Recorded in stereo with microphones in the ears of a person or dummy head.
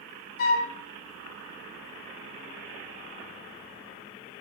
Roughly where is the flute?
Left.